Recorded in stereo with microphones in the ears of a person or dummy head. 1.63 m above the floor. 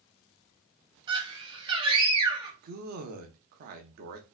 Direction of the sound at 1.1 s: 30° right (ahead or behind).